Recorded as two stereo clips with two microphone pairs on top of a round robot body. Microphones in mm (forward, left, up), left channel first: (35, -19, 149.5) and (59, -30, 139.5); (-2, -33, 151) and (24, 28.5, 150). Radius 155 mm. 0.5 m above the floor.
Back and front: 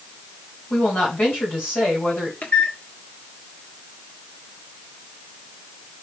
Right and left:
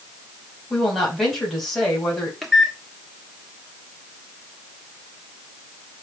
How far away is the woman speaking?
About 3.5 m.